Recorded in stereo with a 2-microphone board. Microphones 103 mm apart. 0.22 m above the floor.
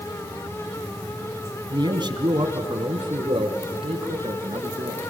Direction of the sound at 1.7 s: 45° right (ahead or behind).